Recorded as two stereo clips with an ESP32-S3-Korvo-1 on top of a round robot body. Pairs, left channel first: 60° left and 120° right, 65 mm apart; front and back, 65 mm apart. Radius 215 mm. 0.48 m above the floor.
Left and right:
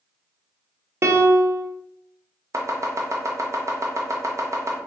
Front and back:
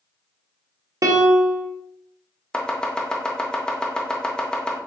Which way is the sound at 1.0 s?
155° right.